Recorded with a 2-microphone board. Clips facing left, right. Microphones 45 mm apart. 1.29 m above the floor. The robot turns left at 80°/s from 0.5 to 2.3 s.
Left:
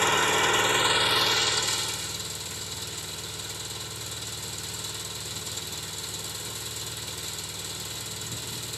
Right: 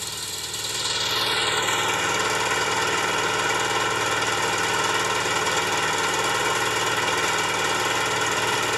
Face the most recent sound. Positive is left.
turn(degrees=-90)